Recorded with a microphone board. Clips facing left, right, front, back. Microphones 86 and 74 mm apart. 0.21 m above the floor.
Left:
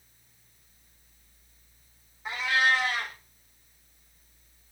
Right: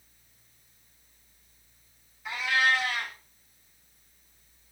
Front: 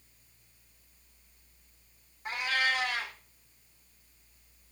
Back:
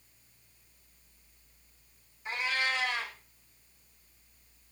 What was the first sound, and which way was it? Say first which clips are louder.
A cat meowing: left 1 dB, front 2 dB; 30° left.